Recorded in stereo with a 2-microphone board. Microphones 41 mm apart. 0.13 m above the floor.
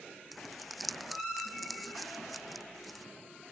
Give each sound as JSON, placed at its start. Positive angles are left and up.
{"t": 0.3, "sound": "crumpling", "side_deg": 0}